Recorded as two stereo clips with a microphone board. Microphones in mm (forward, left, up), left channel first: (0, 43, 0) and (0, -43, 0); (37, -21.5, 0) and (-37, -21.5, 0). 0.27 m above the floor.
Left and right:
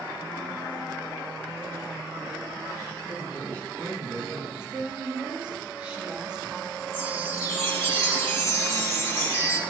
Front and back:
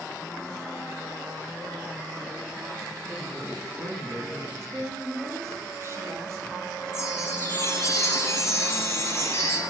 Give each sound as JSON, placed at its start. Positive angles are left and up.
{"t": 3.1, "sound": "a man speaking", "azimuth_deg": 165, "distance_m": 3.5}
{"t": 4.6, "sound": "a woman speaking", "azimuth_deg": -160, "distance_m": 1.3}
{"t": 6.9, "sound": "a chime", "azimuth_deg": 40, "distance_m": 1.3}